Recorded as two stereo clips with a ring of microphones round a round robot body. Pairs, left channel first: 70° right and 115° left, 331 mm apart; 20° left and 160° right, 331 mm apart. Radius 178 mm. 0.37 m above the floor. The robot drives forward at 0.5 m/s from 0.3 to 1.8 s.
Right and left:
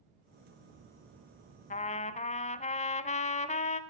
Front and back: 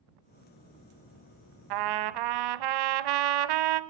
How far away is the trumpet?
About 0.7 m.